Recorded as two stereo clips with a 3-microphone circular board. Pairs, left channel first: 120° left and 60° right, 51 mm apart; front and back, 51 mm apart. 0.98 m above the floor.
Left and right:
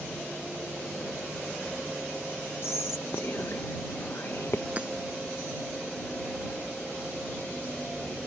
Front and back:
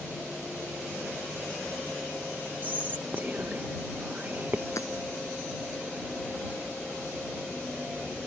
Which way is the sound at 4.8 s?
5° left.